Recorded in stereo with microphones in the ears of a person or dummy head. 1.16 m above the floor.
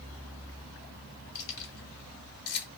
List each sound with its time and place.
1.4 s keys jangling: 55° left (ahead or behind), 1.6 m